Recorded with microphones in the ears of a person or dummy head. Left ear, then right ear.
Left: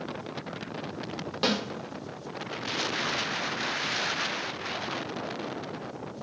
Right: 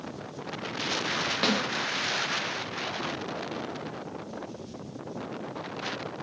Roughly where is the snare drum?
Centre.